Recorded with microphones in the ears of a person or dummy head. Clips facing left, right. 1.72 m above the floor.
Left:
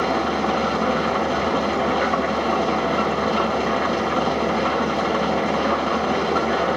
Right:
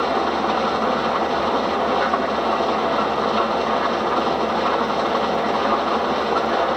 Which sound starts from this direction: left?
An engine running, at 0.0 s.